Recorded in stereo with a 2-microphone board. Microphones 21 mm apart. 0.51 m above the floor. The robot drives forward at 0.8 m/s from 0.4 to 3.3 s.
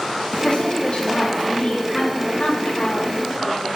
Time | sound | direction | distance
0.4 | a woman speaking | 60° left (ahead or behind) | 5 m